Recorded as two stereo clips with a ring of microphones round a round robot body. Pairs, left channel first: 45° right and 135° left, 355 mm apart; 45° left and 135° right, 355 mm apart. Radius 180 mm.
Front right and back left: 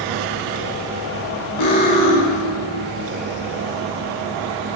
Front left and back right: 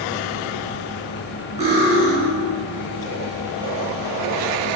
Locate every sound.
1.6 s cutlery clinking: 65° right, 4 m